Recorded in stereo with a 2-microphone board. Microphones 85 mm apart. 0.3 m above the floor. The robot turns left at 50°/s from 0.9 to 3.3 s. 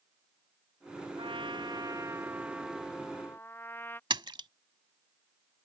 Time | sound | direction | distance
1.2 | a trumpet | 100° right | ?
4.1 | a splash | 65° right (ahead or behind) | ?